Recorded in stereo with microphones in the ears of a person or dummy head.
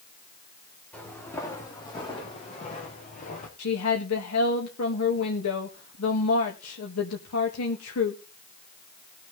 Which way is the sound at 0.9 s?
5° left (ahead or behind).